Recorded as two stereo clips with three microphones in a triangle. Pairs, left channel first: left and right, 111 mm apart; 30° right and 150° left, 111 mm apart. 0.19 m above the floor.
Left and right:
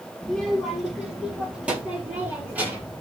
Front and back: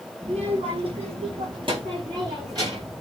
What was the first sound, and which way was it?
A child speaking, 175° left.